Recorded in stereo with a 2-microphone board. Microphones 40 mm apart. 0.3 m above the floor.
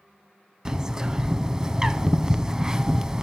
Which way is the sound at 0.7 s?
15° right (ahead or behind).